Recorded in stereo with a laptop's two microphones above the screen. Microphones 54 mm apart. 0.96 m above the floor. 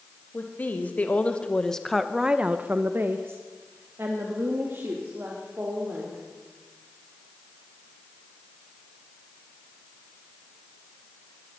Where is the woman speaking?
35° left (ahead or behind), 1.8 m; by 6.2 s 50° right (ahead or behind), 3.5 m.